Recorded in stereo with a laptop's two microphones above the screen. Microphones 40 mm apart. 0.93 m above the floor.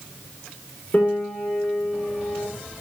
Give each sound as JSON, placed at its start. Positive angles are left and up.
{"t": 0.9, "sound": "a piano", "side_deg": 35, "distance_m": 9.5}